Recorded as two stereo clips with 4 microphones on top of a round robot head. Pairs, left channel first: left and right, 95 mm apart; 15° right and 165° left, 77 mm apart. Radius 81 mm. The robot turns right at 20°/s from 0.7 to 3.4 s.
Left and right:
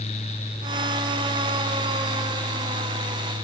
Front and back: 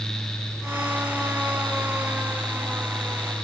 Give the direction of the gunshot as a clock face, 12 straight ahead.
I don't hear a gunshot.